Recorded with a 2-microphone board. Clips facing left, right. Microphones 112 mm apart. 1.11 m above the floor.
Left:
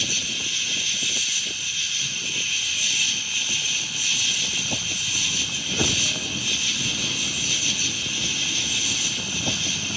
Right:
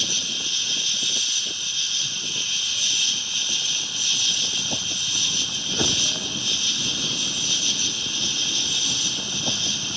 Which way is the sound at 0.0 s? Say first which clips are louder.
Left 1 dB; 20° right (ahead or behind).